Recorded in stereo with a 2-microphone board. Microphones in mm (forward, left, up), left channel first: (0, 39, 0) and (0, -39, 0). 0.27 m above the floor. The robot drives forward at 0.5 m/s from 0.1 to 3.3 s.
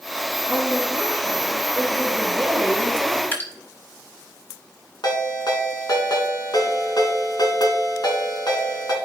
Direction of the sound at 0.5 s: 25° left (ahead or behind).